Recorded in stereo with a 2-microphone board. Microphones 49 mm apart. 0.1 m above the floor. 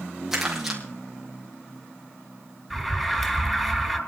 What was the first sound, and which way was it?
Crumpling, 10° right (ahead or behind).